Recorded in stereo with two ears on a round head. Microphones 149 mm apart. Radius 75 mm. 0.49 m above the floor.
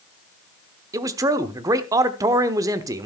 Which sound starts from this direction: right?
A man speaking, at 0.9 s.